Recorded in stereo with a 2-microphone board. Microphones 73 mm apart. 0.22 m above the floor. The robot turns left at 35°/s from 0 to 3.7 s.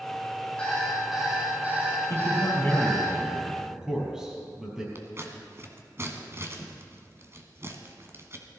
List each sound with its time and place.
0.6 s an alarm clock: 15° left, 6 m; by 3.1 s 75° right, 6 m
2.1 s a man speaking: 45° left, 5 m; by 4.8 s 10° right, 5 m
5.0 s scissors: 40° right (ahead or behind), 1.5 m